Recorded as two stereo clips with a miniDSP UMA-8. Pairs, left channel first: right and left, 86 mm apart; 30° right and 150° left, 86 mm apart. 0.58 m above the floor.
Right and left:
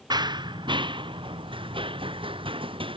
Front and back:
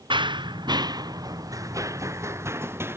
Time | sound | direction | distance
0.1 | running footsteps | 125° left | ?